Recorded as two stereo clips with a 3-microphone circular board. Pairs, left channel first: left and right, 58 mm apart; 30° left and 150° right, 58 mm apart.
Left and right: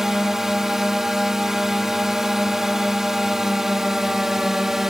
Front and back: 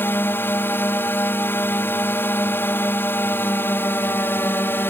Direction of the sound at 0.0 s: 10° right.